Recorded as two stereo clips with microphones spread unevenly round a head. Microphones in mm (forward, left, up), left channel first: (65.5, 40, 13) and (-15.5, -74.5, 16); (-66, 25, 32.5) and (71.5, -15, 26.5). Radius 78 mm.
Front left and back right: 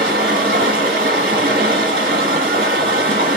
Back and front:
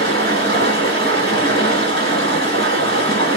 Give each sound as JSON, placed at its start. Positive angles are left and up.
{"t": 0.0, "sound": "running water", "azimuth_deg": -150, "distance_m": 1.5}